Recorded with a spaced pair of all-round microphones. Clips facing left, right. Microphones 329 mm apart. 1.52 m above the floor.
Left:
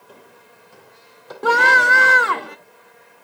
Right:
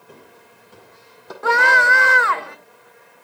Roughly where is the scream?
Left.